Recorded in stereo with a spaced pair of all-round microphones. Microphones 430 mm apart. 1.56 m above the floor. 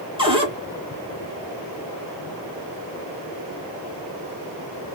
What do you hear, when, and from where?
0.2 s a cupboard door: 10° right (ahead or behind), 1.3 m